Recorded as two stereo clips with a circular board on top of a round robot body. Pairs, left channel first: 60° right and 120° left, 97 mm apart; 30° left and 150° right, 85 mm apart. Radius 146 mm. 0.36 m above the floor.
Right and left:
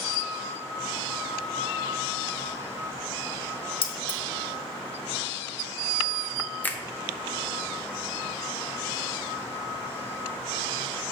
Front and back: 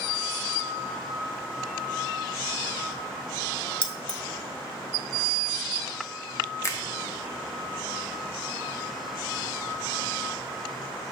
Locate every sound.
3.8 s keys jangling: 50° right, 1.2 m
6.6 s a finger snap: straight ahead, 1.1 m